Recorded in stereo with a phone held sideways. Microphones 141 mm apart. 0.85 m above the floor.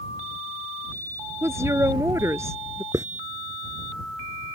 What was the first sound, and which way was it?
A woman speaking, 20° right (ahead or behind).